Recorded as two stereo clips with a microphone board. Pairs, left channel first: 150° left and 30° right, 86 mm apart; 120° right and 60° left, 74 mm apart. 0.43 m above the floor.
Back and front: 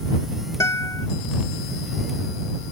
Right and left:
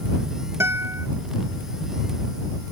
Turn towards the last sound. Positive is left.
turn(degrees=105)